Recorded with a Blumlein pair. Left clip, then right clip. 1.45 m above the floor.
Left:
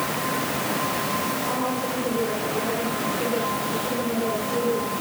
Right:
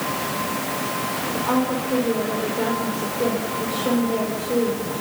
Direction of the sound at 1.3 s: 65° right.